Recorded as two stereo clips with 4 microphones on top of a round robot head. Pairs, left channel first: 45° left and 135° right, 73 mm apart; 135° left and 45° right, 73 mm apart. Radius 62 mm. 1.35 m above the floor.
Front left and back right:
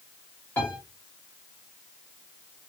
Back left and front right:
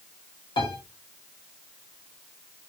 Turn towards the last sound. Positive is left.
turn(degrees=115)